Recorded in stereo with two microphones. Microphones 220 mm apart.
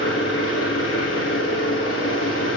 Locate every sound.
0.0 s an engine running: 85° left, 5 m